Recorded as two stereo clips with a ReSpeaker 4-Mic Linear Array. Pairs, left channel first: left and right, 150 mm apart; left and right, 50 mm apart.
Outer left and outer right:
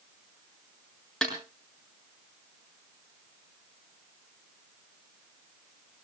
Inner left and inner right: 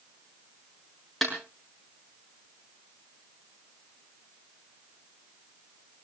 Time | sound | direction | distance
1.2 | a snare drum | 5° left (ahead or behind) | 7 m